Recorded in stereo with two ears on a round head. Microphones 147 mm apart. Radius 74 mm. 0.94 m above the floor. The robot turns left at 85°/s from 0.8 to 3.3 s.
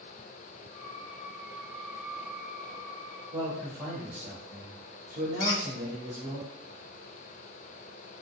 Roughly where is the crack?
I don't hear a crack.